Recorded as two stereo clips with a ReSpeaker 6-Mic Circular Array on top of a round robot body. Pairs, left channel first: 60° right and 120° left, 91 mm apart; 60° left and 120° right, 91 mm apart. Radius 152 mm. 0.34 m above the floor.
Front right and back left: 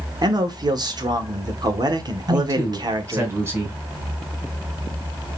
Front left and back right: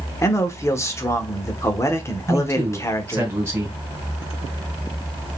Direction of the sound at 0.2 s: 105° left.